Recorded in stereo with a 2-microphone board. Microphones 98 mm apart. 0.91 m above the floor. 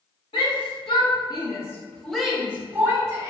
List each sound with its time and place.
0.3 s a shout: 65° left (ahead or behind), 1.3 m; by 3.3 s 30° right (ahead or behind), 1.4 m